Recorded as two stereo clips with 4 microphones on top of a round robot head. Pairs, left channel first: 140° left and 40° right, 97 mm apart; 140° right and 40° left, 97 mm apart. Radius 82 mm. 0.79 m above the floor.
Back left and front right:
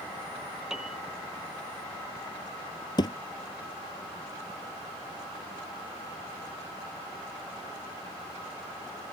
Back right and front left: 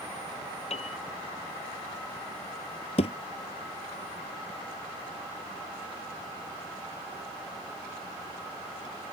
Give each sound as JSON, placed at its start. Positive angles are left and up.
{"t": 0.7, "sound": "a piano", "azimuth_deg": -125}
{"t": 3.0, "sound": "a thud", "azimuth_deg": -170}